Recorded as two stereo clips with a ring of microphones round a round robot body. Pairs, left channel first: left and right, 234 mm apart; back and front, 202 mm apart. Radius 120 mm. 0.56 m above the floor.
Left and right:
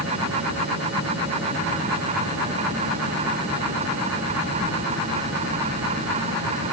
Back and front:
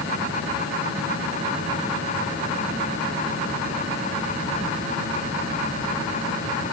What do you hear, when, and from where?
Only background noise.